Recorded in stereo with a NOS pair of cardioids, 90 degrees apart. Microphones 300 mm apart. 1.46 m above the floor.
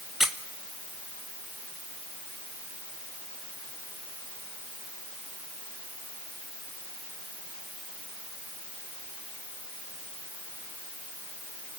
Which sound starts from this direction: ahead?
A squeak, at 0.2 s.